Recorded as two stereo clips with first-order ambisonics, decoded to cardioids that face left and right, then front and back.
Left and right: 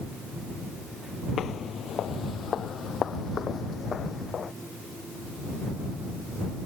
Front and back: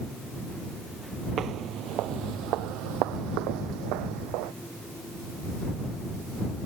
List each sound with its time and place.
1.4 s footsteps: 140° left; by 4.5 s 160° left